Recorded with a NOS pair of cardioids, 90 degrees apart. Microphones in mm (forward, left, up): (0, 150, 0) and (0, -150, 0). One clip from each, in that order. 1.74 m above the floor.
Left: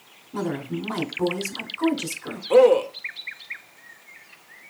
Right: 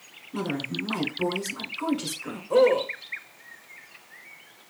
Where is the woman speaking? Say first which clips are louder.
Left 1 dB; 20° left, 1.0 m.